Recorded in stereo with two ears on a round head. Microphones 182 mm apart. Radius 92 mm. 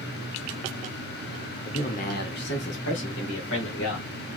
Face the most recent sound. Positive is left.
turn(degrees=75)  # may be behind; listen again after turning